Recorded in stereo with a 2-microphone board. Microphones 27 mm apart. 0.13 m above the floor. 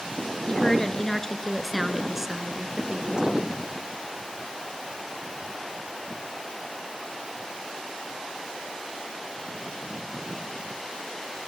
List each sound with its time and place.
0.5 s a woman speaking: 30° left (ahead or behind), 1.6 m; by 3.6 s 40° right (ahead or behind), 1.8 m